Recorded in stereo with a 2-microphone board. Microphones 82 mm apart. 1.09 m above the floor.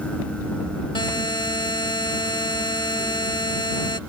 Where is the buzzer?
70° left (ahead or behind).